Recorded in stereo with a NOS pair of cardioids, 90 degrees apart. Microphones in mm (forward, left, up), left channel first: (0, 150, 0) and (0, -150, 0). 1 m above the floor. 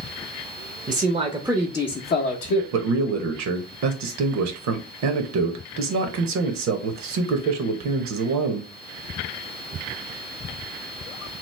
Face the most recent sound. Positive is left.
turn(degrees=-70)